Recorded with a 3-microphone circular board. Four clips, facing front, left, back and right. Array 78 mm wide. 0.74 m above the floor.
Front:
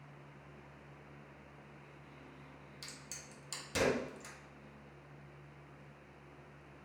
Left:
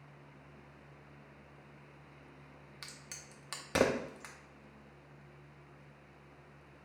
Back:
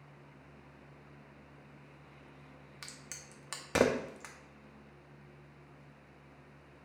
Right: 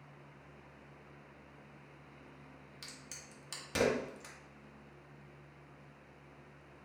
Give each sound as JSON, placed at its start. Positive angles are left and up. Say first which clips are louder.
{"t": 2.8, "sound": "a crack", "louder": "left 2 dB, back 3 dB", "azimuth_deg": 150, "distance_m": 0.6}